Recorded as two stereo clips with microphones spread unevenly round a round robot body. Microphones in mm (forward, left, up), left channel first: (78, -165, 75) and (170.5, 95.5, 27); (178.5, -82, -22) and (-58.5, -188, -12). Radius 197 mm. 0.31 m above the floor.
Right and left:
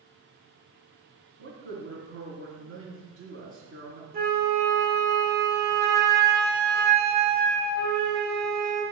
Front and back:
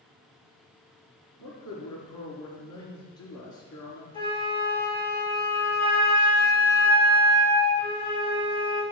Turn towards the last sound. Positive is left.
turn(degrees=85)